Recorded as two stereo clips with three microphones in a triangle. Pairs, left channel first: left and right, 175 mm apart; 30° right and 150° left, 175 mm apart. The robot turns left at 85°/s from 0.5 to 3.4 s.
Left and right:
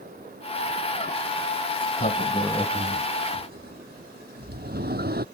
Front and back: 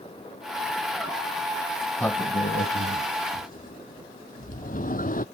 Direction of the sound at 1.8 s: 70° left.